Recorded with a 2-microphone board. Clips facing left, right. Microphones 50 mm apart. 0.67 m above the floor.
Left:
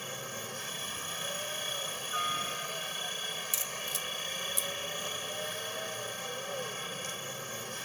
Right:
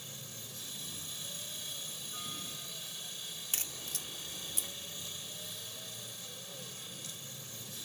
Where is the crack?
50° right (ahead or behind).